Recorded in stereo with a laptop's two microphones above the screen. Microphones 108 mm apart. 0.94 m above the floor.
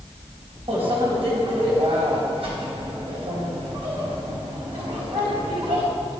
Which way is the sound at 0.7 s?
60° right (ahead or behind).